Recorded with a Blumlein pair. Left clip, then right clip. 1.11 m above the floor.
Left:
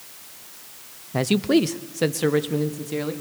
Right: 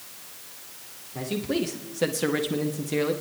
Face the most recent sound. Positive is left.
turn(degrees=-10)